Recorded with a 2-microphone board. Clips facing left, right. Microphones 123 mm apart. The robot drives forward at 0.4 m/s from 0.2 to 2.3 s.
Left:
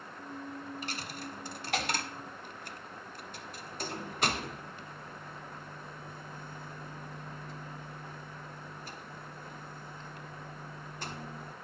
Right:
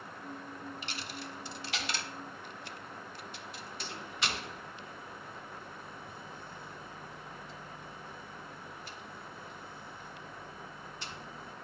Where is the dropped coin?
45° left (ahead or behind), 0.9 m; by 11.5 s 50° left (ahead or behind), 0.8 m.